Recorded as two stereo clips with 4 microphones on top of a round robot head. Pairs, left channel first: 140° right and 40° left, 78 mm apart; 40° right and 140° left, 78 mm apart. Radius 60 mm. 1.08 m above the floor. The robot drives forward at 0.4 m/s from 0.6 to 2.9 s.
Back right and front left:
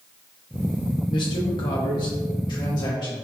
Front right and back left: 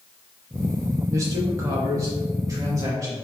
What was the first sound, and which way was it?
A man speaking, 165° right.